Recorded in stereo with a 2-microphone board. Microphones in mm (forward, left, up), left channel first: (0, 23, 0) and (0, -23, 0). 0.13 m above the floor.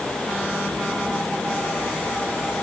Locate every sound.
Only background noise.